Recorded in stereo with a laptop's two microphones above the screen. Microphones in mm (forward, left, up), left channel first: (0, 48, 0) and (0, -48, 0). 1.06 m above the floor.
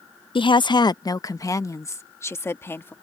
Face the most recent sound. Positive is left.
turn(degrees=25)  # may be behind; listen again after turning